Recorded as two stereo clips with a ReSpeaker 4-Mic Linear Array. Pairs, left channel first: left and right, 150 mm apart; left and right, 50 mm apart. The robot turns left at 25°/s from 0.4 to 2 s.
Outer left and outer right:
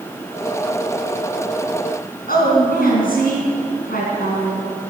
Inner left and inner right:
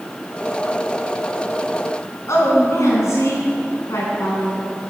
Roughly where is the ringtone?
No ringtone in this recording.